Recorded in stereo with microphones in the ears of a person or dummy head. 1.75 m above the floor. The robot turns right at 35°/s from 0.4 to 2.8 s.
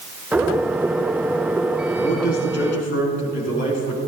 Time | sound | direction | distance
2.0 | a man speaking | 40° left (ahead or behind) | 5 m